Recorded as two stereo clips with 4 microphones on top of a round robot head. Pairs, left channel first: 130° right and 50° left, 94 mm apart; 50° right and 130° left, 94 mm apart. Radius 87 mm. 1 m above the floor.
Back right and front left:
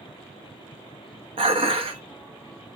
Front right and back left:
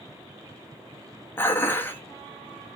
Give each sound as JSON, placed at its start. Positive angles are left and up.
{"t": 1.4, "sound": "dishes clattering", "azimuth_deg": 20, "distance_m": 0.8}